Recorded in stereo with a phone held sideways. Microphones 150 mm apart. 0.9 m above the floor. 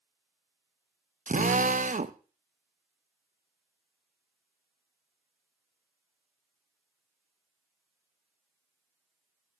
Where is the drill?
60° right (ahead or behind), 0.6 m.